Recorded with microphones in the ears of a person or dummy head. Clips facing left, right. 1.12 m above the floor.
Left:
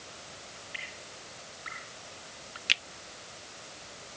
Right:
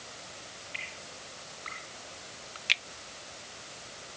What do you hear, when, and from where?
0.7 s dripping: 10° left (ahead or behind)
2.7 s a finger snap: 10° left (ahead or behind)